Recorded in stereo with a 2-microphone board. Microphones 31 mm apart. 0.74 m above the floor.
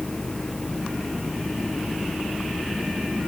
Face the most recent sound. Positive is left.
turn(degrees=35)  # may be behind; listen again after turning